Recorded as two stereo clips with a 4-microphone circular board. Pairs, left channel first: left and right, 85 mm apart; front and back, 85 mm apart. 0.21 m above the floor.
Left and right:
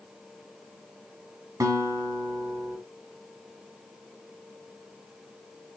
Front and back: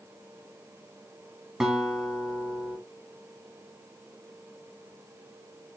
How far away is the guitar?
About 0.9 m.